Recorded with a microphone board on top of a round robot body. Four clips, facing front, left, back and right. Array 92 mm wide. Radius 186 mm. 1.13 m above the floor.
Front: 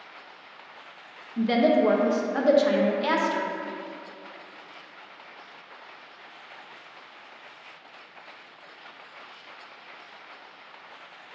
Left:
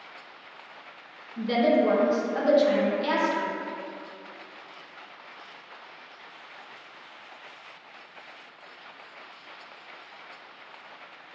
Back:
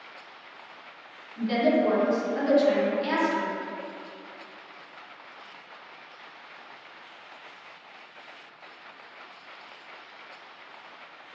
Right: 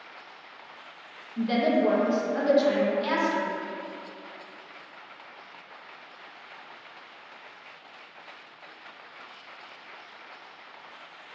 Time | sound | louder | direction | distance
1.4 | a woman speaking | left 1 dB, front 2 dB | straight ahead | 1.3 m